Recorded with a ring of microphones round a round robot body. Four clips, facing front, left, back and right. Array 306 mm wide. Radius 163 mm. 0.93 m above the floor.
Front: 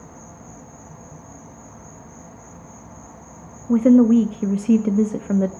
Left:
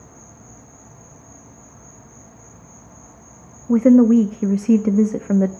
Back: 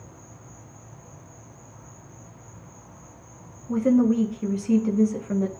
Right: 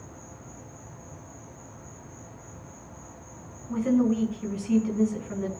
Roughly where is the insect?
Ahead.